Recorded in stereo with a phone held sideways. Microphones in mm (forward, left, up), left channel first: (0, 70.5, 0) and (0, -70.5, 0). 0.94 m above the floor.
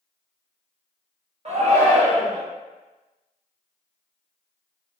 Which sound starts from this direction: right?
A shout, at 1.4 s.